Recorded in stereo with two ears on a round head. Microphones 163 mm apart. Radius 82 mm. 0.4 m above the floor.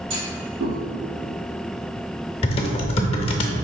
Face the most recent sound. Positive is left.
turn(degrees=30)  # may be behind; listen again after turning